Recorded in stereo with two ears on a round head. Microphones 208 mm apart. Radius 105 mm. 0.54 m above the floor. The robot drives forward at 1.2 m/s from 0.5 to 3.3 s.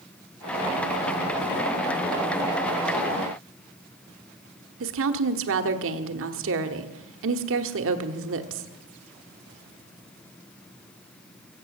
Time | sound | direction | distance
4.8 | a woman speaking | 60° right (ahead or behind) | 1.2 m